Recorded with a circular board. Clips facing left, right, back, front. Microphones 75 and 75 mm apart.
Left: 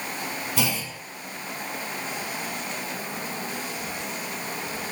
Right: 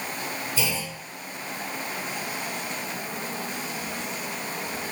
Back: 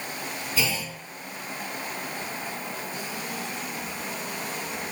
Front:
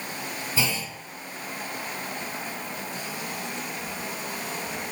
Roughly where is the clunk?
Ahead left.